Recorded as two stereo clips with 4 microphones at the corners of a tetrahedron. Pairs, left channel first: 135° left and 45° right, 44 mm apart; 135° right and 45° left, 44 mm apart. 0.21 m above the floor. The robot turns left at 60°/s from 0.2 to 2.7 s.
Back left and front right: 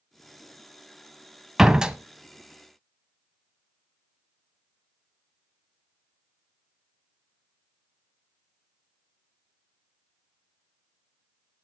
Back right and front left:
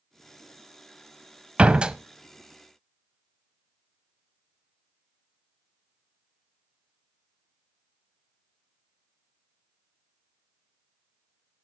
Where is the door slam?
20° left, 0.7 m; by 2.0 s straight ahead, 0.7 m.